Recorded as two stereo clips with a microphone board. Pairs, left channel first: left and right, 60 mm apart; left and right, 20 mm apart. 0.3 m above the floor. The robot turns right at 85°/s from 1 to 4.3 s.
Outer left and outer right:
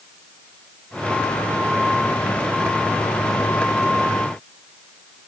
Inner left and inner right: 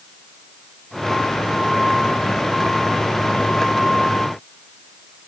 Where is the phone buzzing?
No phone buzzing in this recording.